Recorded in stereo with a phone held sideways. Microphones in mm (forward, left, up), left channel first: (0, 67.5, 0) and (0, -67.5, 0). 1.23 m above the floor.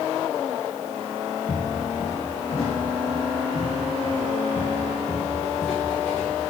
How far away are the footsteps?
About 2.5 m.